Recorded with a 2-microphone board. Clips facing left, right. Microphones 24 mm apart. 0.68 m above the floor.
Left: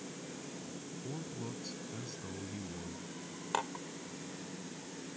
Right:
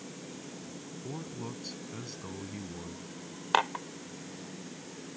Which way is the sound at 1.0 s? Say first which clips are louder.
Right 3 dB; 30° right (ahead or behind).